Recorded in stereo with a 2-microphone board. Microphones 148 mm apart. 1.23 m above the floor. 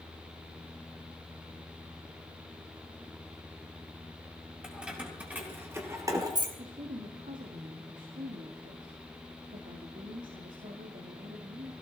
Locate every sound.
4.6 s keys jangling: 5° right (ahead or behind), 4 m; by 6.5 s 30° right (ahead or behind), 2 m
6.6 s a woman speaking: 65° right (ahead or behind), 2 m